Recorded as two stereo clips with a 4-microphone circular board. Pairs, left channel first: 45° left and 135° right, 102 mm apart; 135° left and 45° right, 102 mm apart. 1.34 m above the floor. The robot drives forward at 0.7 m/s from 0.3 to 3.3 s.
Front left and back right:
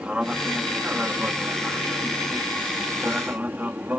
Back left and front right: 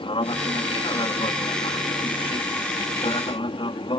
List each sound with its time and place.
0.0 s an aircraft: 145° left; by 4.0 s 155° left